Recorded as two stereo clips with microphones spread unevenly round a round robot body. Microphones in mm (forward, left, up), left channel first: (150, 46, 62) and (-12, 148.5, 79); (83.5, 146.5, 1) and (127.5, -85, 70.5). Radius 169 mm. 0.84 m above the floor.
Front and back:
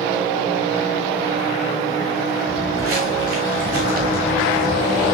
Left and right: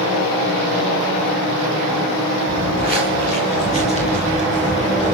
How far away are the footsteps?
About 5 m.